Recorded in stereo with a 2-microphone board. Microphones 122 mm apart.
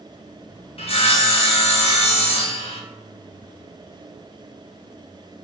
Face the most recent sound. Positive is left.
turn(degrees=50)  # may be behind; listen again after turning